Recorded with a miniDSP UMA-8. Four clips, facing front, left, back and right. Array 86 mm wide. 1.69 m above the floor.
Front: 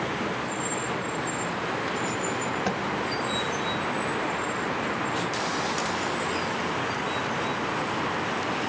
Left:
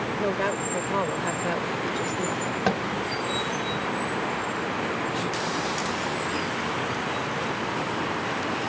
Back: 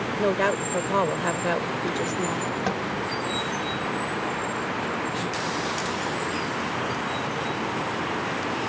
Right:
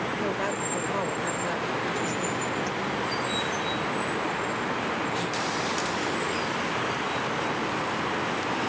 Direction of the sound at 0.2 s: 165° left.